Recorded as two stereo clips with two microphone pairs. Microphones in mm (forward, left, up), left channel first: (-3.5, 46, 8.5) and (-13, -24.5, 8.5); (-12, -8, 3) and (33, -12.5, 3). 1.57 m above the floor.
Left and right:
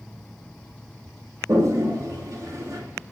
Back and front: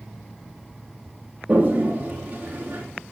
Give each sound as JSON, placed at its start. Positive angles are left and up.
{"t": 1.5, "sound": "a toilet flushing", "azimuth_deg": -55, "distance_m": 3.5}